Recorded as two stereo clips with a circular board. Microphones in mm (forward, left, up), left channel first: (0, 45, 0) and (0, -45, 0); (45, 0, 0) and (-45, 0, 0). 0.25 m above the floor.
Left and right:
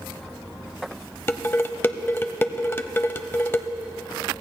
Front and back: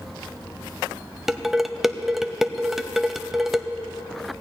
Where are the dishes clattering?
100° left, 0.6 m.